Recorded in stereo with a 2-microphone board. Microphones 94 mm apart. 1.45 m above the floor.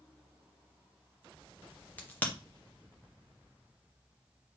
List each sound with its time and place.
2.0 s a crack: 15° left (ahead or behind), 1.0 m